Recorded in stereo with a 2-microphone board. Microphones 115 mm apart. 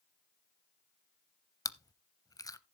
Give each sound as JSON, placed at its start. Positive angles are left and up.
{"t": 1.6, "sound": "chewing", "side_deg": 30, "distance_m": 0.6}